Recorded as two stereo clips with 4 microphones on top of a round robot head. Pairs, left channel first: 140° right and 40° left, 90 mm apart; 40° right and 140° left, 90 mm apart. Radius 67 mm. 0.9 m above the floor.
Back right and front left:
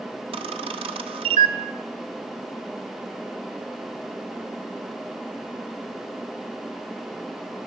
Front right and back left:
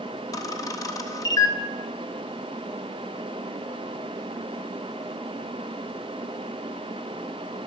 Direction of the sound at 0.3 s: 15° left.